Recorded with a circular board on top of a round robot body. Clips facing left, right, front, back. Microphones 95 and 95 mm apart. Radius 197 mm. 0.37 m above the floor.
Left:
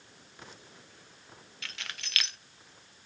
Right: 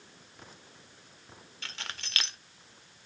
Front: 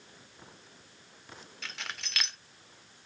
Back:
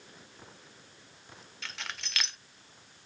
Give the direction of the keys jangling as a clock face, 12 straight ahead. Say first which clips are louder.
Right 1 dB, back 1 dB; 3 o'clock.